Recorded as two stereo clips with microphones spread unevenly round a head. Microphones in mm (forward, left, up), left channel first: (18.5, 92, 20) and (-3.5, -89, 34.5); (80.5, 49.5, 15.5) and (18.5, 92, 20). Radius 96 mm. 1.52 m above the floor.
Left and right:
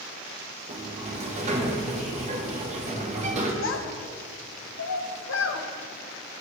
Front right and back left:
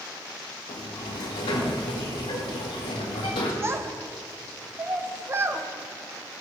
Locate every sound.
0.7 s a sliding door: 45° right, 1.2 m
3.6 s a child speaking: 100° left, 1.1 m